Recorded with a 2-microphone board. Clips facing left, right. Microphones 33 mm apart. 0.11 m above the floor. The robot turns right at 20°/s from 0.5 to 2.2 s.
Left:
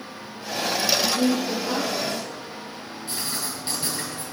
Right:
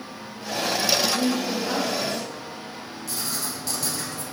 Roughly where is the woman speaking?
Centre.